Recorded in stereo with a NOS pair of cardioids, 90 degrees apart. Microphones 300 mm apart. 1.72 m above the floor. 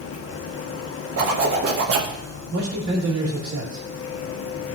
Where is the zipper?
50° right, 1.3 m.